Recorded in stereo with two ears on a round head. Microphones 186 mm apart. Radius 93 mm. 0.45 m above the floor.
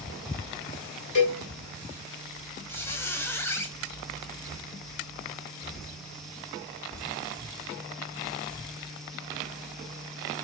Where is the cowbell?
60° left (ahead or behind), 2 m.